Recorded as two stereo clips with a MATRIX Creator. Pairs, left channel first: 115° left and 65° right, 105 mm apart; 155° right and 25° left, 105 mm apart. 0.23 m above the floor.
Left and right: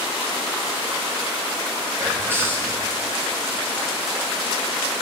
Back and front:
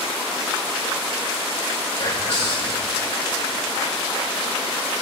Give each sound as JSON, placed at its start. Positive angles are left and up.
{"t": 2.0, "sound": "whispering", "azimuth_deg": -135, "distance_m": 7.5}